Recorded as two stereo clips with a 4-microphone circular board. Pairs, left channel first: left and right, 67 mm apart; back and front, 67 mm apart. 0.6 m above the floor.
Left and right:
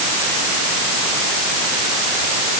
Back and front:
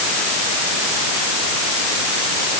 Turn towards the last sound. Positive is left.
No sound to turn to.